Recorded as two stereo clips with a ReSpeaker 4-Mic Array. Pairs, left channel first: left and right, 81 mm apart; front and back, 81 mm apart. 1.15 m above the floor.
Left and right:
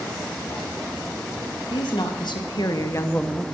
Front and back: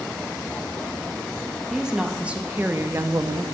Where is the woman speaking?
95° left, 2 m; by 3.4 s 170° right, 0.7 m.